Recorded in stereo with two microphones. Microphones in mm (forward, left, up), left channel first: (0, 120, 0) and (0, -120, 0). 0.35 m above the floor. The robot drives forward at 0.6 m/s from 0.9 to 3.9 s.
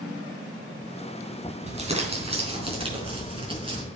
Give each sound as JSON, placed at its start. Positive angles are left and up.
{"t": 1.7, "sound": "crumpling", "side_deg": -25, "distance_m": 3.5}